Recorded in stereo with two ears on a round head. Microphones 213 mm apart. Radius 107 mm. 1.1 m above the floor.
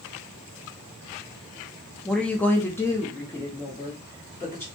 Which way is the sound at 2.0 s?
Centre (ahead or behind).